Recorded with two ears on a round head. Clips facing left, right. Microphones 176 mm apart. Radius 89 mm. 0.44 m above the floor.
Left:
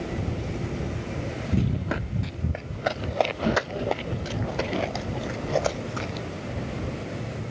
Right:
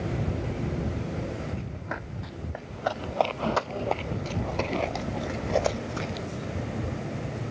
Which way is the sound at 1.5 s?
50° left (ahead or behind).